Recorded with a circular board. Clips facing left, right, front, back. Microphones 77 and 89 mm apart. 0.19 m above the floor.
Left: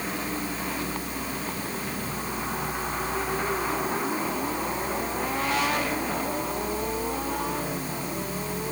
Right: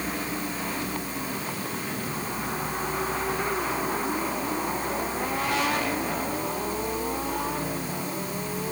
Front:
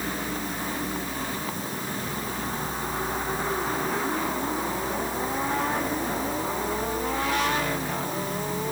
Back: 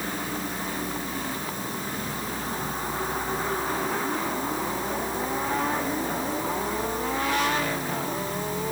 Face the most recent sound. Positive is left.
No sound to turn to.